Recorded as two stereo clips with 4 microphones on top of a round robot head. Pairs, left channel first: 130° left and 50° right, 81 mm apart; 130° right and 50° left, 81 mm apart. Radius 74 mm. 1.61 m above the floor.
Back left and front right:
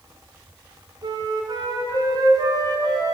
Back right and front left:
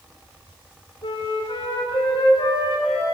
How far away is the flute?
About 4.5 m.